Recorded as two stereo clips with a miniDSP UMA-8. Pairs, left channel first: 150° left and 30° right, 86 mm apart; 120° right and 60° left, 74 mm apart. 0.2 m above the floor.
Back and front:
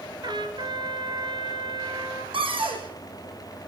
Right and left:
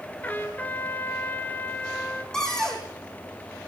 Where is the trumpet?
55° right, 2.5 m.